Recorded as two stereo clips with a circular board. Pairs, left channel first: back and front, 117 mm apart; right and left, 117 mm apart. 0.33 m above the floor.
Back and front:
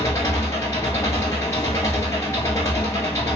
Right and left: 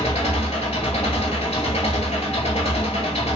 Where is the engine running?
115° right, 1.3 m.